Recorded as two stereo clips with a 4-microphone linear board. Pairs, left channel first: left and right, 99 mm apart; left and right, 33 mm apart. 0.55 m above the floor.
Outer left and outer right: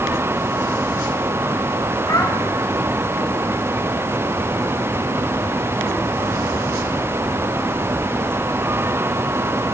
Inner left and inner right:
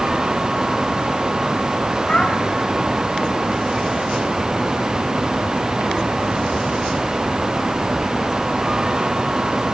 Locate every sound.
2.1 s a child speaking: 35° left (ahead or behind), 1.6 m